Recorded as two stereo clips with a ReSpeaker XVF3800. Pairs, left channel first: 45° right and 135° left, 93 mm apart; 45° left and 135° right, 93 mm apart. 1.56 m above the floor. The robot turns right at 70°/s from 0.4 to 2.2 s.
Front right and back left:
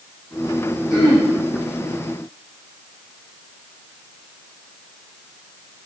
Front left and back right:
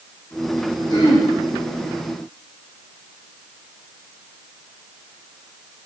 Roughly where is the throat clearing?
Ahead.